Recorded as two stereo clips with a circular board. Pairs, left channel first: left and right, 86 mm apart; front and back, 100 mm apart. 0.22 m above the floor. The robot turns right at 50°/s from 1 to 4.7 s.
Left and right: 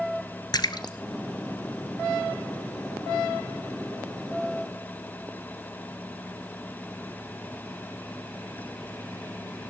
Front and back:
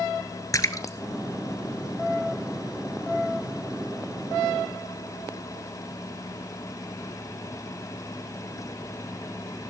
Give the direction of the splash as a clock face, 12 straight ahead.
10 o'clock.